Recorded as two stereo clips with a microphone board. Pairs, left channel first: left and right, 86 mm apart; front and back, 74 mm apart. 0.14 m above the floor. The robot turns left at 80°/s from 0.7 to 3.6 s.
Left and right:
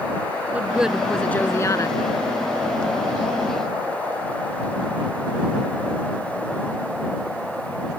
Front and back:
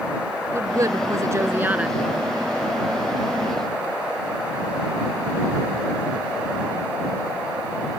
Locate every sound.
0.5 s a woman speaking: 155° right; by 2.0 s 100° left